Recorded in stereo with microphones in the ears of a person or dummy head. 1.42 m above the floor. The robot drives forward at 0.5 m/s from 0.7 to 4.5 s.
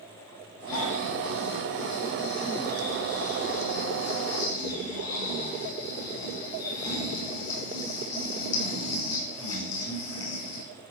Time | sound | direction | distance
0.7 | snoring | 80° left | 7.5 m